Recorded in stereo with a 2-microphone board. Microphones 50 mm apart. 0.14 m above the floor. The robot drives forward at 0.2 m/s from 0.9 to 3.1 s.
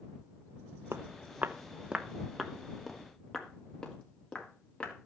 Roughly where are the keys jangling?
I don't hear keys jangling.